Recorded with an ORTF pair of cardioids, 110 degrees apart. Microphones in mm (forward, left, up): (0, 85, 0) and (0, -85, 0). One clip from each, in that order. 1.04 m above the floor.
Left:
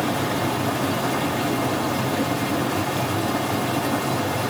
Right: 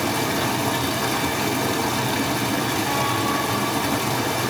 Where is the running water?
55° right, 3 m.